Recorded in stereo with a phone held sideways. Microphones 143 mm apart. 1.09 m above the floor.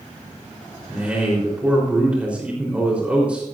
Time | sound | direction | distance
0.9 | a man speaking | 10° right (ahead or behind) | 4 m